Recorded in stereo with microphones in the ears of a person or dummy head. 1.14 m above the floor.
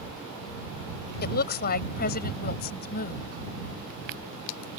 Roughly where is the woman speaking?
Left.